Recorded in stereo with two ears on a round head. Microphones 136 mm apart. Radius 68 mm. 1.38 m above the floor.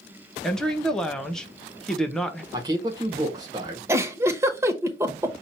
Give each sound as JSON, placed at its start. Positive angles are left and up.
{"t": 0.4, "sound": "a woman speaking", "side_deg": 5, "distance_m": 1.0}
{"t": 2.5, "sound": "a man speaking", "side_deg": -25, "distance_m": 1.7}
{"t": 3.9, "sound": "a giggle", "side_deg": -15, "distance_m": 0.8}